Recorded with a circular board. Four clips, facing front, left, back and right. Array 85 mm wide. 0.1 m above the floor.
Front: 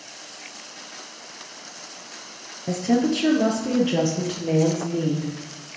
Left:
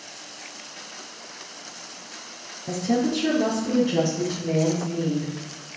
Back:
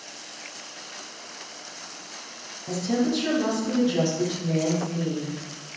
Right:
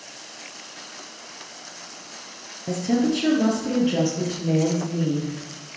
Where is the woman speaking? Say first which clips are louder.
Right 1 dB, front 4 dB; 25° right, 1.5 m; by 5.3 s 20° right, 2.5 m.